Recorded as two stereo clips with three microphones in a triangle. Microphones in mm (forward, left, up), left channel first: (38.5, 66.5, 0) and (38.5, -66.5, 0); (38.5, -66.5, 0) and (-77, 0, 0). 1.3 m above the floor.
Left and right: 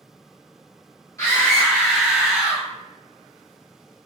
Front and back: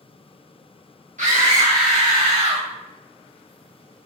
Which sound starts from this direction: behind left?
A scream, at 1.2 s.